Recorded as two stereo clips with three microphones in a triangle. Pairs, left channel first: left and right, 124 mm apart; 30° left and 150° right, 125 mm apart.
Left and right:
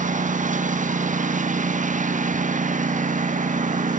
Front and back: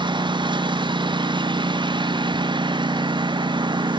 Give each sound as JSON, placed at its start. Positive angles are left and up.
{"t": 0.0, "sound": "a lawn mower", "azimuth_deg": -95}